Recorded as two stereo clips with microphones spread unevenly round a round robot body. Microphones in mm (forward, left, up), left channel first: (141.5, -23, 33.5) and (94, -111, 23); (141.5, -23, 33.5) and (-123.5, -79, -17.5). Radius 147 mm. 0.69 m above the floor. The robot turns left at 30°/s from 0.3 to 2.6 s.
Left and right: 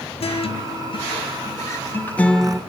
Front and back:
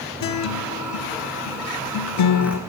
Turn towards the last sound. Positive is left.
turn(degrees=-30)